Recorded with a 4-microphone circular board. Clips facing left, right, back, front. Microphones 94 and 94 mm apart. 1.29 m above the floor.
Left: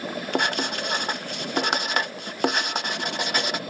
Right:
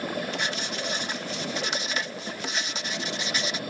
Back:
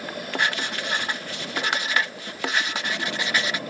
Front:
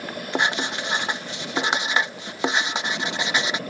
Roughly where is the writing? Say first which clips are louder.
Left 6 dB, front 3 dB; left.